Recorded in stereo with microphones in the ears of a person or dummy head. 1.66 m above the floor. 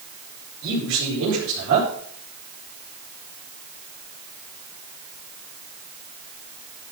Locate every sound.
0.6 s a man speaking: 65° right (ahead or behind), 5 m